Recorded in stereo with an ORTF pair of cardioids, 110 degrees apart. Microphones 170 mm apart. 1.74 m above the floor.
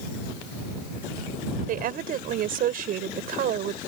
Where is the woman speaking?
65° right.